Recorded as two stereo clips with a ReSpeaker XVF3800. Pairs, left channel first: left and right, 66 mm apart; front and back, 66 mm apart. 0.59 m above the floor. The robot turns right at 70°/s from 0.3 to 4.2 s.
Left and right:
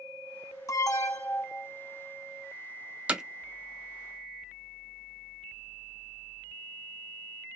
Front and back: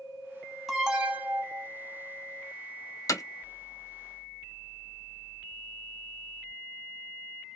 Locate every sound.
0.7 s an alarm: 90° left, 0.7 m; by 1.7 s 160° left, 0.7 m
3.1 s hammering: 20° right, 0.6 m; by 3.2 s 10° right, 0.6 m